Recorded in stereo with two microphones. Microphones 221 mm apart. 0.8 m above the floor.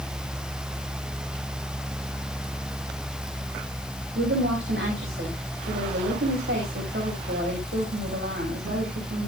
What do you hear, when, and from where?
4.2 s a woman speaking: 65° right (ahead or behind), 5 m